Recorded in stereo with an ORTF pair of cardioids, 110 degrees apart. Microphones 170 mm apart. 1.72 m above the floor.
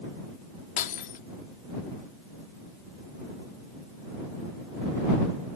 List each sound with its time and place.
0.8 s breaking glass: 55° left